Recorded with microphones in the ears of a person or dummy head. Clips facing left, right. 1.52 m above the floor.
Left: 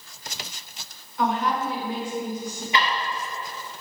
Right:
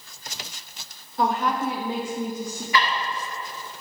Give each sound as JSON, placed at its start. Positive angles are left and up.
{"t": 1.2, "sound": "a woman speaking", "side_deg": -30, "distance_m": 0.7}
{"t": 2.7, "sound": "ticking", "side_deg": 20, "distance_m": 1.8}